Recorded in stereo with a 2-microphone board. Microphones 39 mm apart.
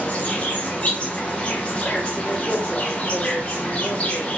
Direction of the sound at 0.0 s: 25° left (ahead or behind).